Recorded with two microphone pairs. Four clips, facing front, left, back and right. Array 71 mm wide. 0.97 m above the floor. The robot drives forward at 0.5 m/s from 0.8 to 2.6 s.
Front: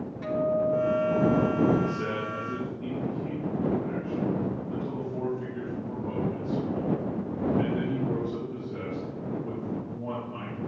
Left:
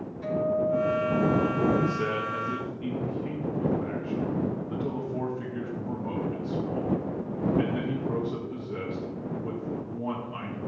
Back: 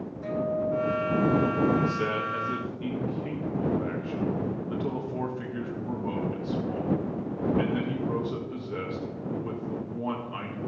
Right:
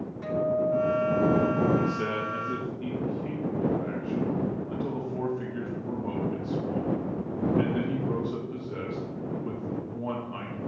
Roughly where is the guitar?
Ahead.